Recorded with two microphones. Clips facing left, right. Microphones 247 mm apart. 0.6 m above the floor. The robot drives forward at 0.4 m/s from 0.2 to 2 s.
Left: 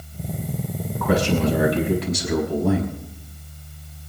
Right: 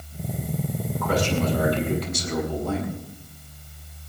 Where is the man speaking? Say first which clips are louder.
Left 4 dB; 75° left (ahead or behind), 5.5 m.